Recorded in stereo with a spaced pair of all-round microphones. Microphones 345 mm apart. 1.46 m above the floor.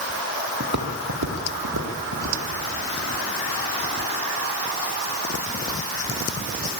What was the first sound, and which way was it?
Footsteps, 50° right (ahead or behind).